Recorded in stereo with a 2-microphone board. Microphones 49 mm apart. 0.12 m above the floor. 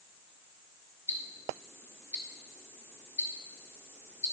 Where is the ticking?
45° left (ahead or behind), 1.3 m.